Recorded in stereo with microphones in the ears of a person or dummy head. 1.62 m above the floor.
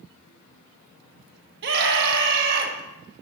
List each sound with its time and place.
1.6 s a scream: 60° right (ahead or behind), 1.7 m